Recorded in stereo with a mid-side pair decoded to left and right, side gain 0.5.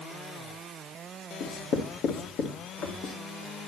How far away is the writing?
About 2.5 m.